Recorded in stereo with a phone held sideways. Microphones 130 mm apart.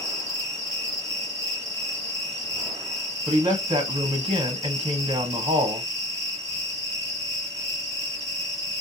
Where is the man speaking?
40° right (ahead or behind), 1.1 m.